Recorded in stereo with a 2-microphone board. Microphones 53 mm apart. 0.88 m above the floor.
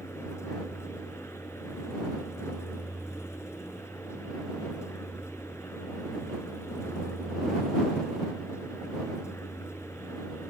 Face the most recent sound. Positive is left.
turn(degrees=65)  # may be behind; listen again after turning